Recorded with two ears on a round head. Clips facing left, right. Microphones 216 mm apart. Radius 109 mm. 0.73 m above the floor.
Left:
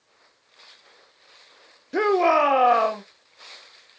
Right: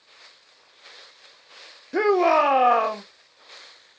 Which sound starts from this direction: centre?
A shout, at 1.9 s.